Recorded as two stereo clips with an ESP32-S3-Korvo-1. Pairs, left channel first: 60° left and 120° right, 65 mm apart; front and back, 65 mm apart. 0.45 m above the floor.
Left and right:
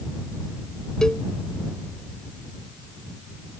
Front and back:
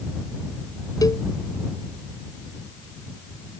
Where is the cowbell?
20° right.